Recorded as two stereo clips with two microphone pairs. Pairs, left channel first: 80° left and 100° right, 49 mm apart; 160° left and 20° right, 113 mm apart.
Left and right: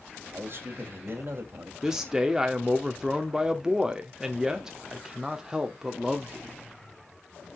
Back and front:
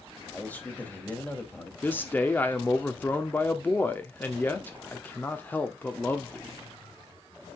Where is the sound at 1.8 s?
160° right, 0.8 m.